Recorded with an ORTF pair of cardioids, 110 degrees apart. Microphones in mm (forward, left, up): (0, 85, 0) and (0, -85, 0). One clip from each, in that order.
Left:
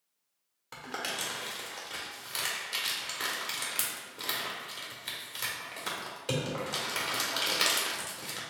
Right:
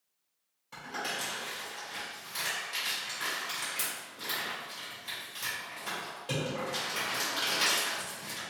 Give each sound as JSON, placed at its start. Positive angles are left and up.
{"t": 0.7, "sound": "crumpling", "azimuth_deg": 60, "distance_m": 1.7}